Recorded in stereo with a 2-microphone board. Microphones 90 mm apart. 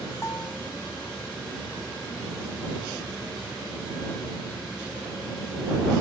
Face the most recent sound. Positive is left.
turn(degrees=35)  # may be behind; listen again after turning